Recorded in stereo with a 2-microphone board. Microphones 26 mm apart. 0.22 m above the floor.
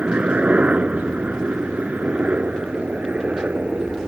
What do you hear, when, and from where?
0.0 s a helicopter: 55° right (ahead or behind)